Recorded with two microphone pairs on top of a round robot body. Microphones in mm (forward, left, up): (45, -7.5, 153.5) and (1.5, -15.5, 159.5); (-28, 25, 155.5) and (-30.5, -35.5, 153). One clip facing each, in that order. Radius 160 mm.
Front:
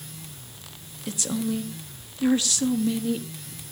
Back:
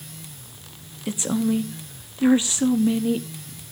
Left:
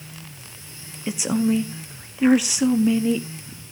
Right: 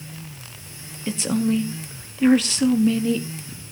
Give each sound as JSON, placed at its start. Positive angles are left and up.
{"t": 1.1, "sound": "a woman speaking", "azimuth_deg": 155, "distance_m": 1.0}